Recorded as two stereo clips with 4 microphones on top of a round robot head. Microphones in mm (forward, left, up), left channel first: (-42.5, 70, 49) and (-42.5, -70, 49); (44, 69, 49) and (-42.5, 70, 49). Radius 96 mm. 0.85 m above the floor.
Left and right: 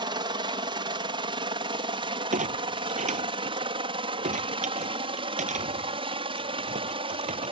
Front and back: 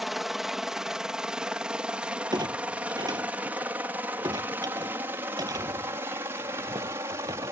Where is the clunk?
120° right.